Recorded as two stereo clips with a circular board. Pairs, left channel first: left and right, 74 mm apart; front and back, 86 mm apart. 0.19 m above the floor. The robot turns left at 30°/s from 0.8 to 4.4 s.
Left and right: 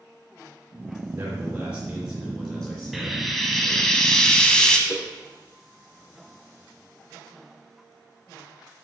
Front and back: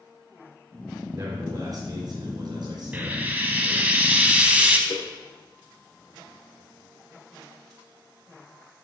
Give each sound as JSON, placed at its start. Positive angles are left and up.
{"t": 1.1, "sound": "a man speaking", "azimuth_deg": -145, "distance_m": 3.0}
{"t": 2.9, "sound": "frying", "azimuth_deg": -170, "distance_m": 0.7}
{"t": 4.9, "sound": "a whoosh", "azimuth_deg": 20, "distance_m": 1.3}